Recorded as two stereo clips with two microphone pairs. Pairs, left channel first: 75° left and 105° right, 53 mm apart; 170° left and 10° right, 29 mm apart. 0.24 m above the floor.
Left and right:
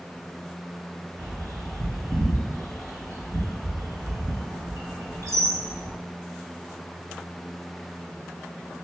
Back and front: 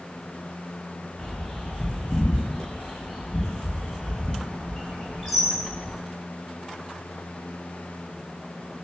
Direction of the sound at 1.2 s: 90° right.